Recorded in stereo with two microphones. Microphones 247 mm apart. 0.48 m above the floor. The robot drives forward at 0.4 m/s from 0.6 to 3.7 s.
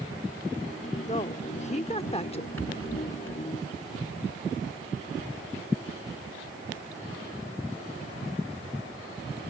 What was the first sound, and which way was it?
A woman speaking, 30° left (ahead or behind).